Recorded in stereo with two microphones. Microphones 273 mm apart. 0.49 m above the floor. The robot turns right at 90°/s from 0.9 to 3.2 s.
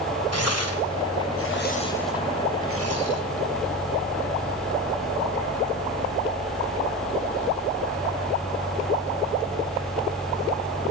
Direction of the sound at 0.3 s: 60° left (ahead or behind).